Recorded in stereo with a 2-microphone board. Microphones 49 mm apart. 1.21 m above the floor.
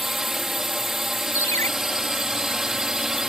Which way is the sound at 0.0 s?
10° right (ahead or behind).